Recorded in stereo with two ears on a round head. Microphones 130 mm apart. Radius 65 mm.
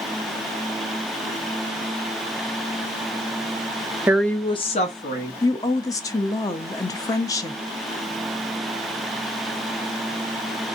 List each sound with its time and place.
4.1 s a woman speaking: 15° right (ahead or behind), 0.5 m; by 5.3 s 60° left (ahead or behind), 1.4 m
5.4 s a woman speaking: 25° left (ahead or behind), 0.6 m